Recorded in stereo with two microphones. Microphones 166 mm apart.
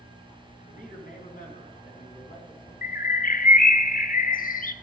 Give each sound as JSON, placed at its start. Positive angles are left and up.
{"t": 0.7, "sound": "a man speaking", "side_deg": 55, "distance_m": 3.0}
{"t": 2.8, "sound": "a bird", "side_deg": 55, "distance_m": 0.6}